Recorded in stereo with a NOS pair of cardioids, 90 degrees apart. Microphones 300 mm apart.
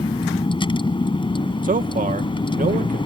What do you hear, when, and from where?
0.0 s a vehicle: 15° left
1.6 s a man speaking: 30° right